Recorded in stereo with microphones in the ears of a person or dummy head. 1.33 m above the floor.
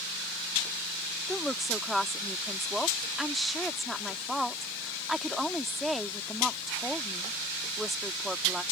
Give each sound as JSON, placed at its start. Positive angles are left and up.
{"t": 1.3, "sound": "a woman speaking", "side_deg": -5}